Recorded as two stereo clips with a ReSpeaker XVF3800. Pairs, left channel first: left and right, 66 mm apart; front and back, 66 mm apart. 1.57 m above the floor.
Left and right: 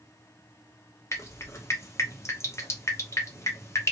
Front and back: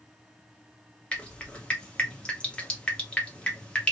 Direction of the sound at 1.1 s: 65° left.